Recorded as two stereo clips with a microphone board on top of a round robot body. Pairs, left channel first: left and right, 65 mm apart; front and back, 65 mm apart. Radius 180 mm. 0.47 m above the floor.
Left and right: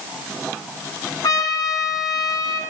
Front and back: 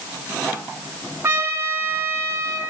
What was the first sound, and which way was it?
A trumpet, 125° left.